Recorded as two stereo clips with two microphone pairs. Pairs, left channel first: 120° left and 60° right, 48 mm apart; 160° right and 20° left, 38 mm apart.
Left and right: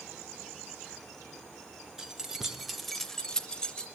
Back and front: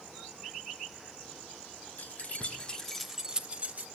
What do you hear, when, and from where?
2.0 s keys jangling: 135° right, 0.9 m; by 3.9 s 50° left, 0.8 m